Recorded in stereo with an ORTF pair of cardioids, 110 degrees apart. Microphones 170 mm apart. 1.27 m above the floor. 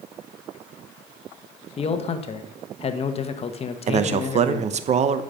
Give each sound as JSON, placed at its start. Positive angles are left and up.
{"t": 1.8, "sound": "a man speaking", "azimuth_deg": 35, "distance_m": 1.2}
{"t": 3.9, "sound": "a man speaking", "azimuth_deg": -45, "distance_m": 0.9}